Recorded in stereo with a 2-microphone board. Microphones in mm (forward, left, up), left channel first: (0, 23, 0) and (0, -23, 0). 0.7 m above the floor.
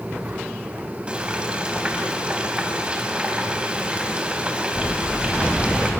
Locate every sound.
1.1 s frying: 20° right (ahead or behind), 4 m